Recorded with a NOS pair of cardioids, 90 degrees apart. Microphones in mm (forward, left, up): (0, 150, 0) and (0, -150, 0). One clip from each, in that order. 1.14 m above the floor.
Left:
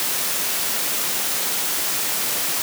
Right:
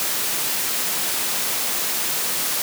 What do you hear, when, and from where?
Only background noise.